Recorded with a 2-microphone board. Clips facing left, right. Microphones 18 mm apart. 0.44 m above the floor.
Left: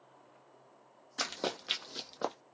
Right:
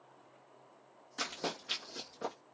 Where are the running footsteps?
35° left (ahead or behind), 0.8 m; by 2.3 s 55° left (ahead or behind), 0.7 m.